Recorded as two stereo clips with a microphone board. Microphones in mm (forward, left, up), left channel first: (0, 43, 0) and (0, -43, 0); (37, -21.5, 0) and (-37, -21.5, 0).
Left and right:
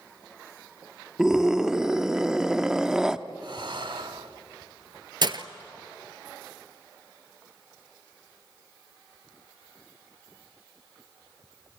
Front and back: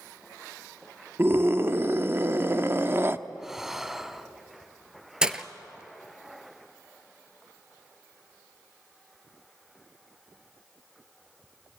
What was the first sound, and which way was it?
A scream, 165° right.